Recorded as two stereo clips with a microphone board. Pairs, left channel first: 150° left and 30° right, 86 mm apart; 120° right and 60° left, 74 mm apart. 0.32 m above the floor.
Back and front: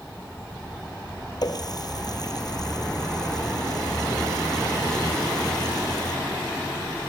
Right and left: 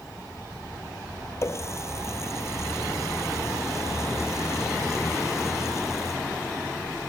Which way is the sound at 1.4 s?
170° right.